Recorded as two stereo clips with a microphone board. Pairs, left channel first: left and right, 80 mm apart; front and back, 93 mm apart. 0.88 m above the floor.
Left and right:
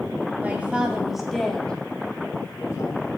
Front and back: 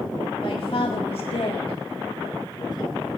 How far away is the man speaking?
About 1.7 m.